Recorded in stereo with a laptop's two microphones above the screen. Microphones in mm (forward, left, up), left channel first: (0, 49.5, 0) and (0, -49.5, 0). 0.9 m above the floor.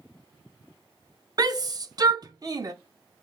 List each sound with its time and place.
1.4 s a shout: 40° right (ahead or behind), 0.6 m